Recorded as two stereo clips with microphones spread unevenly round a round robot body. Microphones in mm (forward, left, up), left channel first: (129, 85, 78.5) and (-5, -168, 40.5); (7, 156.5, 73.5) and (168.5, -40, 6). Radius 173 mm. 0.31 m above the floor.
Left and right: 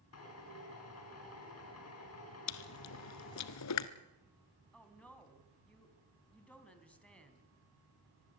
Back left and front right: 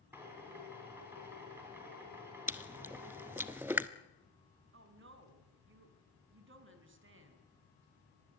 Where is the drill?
25° left, 5.5 m.